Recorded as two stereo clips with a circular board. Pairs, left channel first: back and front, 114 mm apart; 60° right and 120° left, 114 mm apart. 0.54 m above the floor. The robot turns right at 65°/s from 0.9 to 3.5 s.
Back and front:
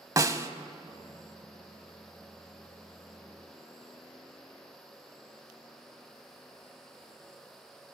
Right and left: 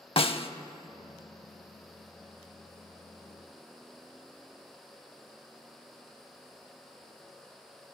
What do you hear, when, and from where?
0.2 s a snare drum: 55° right, 0.5 m